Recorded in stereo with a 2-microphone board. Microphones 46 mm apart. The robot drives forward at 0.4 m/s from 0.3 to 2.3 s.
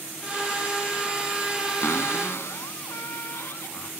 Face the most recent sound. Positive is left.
turn(degrees=70)  # may be behind; listen again after turning